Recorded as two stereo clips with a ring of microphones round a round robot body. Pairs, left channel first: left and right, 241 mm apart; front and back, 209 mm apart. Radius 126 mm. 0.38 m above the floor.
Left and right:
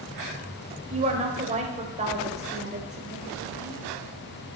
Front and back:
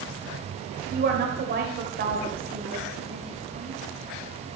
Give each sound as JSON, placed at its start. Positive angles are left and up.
{"t": 0.9, "sound": "a woman speaking", "azimuth_deg": -145, "distance_m": 1.8}